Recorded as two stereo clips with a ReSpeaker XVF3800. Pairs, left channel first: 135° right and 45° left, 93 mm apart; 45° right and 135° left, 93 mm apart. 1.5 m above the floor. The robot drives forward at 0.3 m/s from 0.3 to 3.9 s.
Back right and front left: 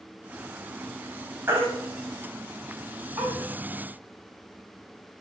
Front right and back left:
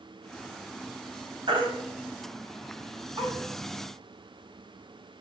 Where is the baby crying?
110° left, 4 m; by 3.3 s 120° left, 4.5 m.